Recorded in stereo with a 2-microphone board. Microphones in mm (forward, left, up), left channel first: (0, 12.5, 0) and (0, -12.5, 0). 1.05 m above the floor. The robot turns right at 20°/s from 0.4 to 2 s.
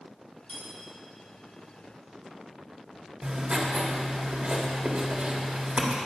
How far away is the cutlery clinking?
About 3 m.